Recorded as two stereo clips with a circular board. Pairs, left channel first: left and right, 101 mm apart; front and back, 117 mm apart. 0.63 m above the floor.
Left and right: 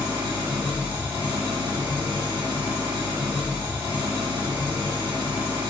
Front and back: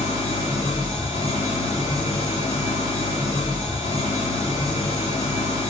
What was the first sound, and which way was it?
An engine running, 20° right.